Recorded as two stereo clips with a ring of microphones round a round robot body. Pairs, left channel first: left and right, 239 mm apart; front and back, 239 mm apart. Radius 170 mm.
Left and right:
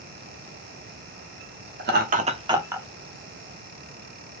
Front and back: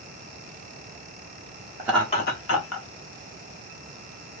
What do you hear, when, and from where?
1.8 s laughter: 115° right, 0.8 m; by 2.9 s 10° right, 1.6 m